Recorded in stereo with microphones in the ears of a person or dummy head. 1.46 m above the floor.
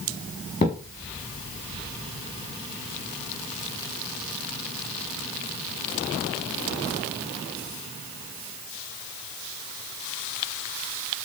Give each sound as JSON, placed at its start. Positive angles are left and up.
{"t": 0.6, "sound": "a thud", "side_deg": 25, "distance_m": 7.0}